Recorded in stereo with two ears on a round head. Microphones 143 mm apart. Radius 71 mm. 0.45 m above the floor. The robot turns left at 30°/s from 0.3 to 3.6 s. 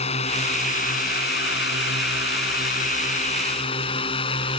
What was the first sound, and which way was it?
A drone, 40° left (ahead or behind).